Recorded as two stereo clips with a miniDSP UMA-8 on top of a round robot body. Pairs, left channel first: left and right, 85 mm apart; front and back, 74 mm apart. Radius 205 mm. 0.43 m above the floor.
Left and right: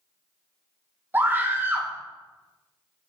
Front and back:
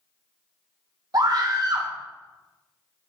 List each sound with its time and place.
1.1 s a scream: 155° right, 1.9 m